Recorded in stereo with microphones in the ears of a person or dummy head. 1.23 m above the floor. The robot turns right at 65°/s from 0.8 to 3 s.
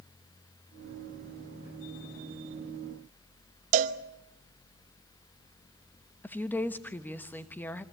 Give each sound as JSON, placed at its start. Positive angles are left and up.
{"t": 3.7, "sound": "a cowbell", "side_deg": -45, "distance_m": 1.1}
{"t": 6.2, "sound": "a woman speaking", "side_deg": 5, "distance_m": 1.1}